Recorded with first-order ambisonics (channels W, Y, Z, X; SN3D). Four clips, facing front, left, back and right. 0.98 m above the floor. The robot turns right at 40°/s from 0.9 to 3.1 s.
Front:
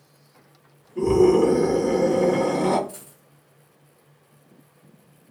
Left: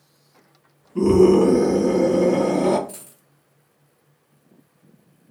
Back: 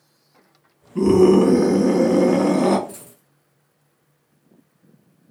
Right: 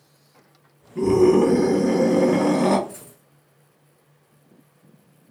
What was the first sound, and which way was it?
A scream, 150° left.